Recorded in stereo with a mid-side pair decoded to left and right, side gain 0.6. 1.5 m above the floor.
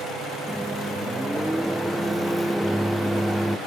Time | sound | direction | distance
0.5 | a microwave | straight ahead | ?